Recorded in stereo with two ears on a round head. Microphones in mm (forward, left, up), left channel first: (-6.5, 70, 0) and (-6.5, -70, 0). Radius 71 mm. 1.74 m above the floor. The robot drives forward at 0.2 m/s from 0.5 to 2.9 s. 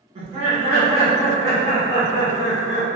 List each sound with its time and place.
0.1 s laughter: 40° right (ahead or behind), 1.0 m; by 3.0 s 25° right (ahead or behind), 1.3 m